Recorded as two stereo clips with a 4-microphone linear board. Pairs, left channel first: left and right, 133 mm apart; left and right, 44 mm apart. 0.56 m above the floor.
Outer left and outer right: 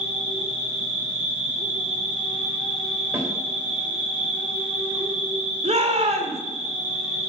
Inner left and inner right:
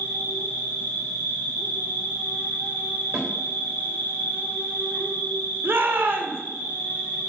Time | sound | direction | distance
0.0 | an insect | 40° left (ahead or behind) | 5.5 m
3.1 | a snare drum | 15° right (ahead or behind) | 3 m
5.6 | a shout | 55° right (ahead or behind) | 2 m